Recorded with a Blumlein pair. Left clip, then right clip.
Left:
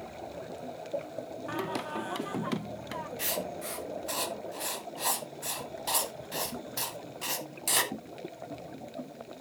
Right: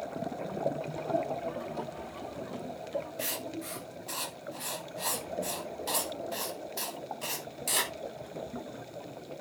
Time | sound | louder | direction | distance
1.5 | singing | left 3 dB | 50° left | 0.8 m
3.2 | writing | left 2 dB | 10° left | 1.4 m